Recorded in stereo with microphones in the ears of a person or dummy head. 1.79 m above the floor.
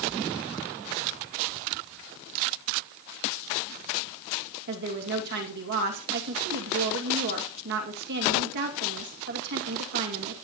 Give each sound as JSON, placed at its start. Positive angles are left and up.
{"t": 4.7, "sound": "a woman speaking", "side_deg": -50, "distance_m": 2.5}